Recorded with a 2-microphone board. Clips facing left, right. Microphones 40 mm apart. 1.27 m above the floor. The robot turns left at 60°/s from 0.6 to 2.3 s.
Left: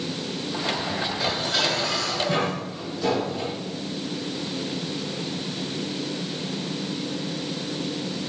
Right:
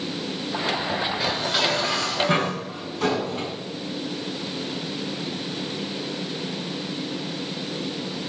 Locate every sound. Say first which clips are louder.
1.2 s dishes clattering: left 1 dB; 5° right, 7 m; by 3.5 s 70° right, 7 m